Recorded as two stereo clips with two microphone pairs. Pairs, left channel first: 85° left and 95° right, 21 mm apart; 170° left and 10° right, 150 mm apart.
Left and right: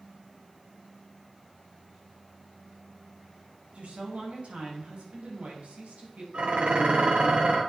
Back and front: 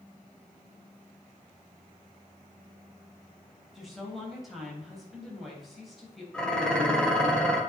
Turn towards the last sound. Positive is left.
turn(degrees=-105)